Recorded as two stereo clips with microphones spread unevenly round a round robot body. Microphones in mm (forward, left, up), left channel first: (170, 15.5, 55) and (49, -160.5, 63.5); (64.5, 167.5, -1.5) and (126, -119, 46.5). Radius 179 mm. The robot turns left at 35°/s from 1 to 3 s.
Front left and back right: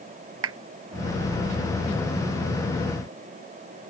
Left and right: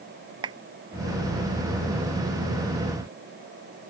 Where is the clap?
155° right.